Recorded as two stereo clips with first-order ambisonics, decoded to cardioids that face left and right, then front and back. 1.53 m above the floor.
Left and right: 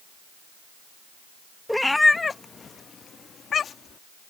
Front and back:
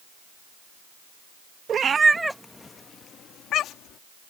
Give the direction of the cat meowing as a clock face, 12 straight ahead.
6 o'clock.